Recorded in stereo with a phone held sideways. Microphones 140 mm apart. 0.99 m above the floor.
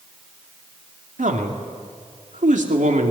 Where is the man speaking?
65° right (ahead or behind), 2.5 m.